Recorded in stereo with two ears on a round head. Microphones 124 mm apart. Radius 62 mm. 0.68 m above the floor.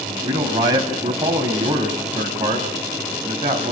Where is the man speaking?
30° right (ahead or behind), 5 m.